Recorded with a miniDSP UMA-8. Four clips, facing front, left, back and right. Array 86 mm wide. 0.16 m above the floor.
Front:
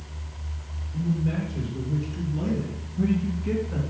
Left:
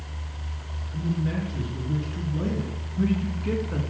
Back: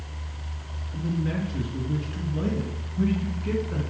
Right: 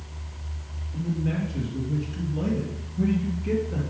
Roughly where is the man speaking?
Behind.